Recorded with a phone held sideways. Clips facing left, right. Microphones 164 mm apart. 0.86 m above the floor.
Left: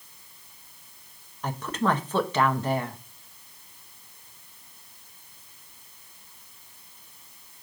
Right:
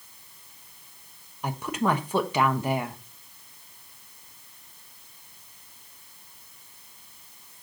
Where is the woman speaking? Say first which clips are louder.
Even; 10° right (ahead or behind), 1.0 m.